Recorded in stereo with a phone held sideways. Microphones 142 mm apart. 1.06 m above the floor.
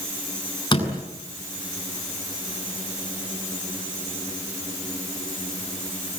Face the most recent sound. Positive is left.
turn(degrees=30)  # may be behind; listen again after turning